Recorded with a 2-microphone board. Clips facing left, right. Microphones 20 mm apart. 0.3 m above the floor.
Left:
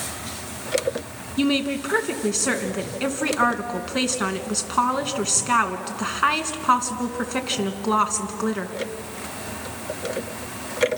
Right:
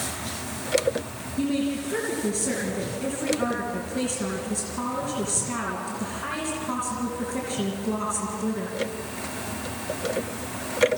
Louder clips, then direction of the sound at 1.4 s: Left 4 dB; 65° left (ahead or behind).